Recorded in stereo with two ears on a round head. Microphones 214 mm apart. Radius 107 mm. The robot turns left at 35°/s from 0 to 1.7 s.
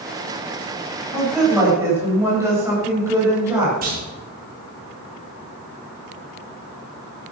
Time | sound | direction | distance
1.1 | a woman speaking | 10° left (ahead or behind) | 7.5 m
3.8 | a clunk | 40° right (ahead or behind) | 5 m